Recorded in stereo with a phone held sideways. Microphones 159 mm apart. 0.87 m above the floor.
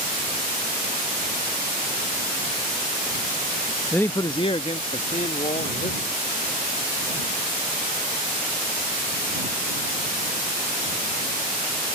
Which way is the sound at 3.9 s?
5° left (ahead or behind).